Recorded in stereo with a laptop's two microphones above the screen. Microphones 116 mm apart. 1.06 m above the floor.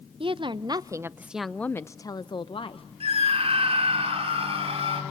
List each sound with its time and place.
0.2 s a woman speaking: 50° right (ahead or behind), 0.9 m; by 2.9 s 55° left (ahead or behind), 1.0 m
3.0 s a scream: 55° right (ahead or behind), 3.5 m